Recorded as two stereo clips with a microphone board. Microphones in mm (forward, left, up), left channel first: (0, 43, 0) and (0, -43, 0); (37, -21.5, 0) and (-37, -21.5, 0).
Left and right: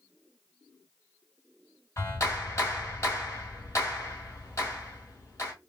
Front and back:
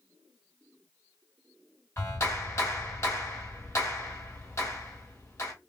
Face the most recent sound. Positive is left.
turn(degrees=40)